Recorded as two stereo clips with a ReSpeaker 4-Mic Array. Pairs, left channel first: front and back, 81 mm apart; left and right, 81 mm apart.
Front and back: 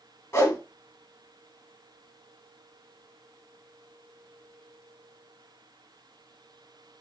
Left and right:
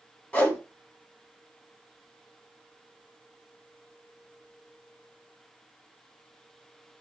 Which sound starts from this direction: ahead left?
A whoosh, at 0.3 s.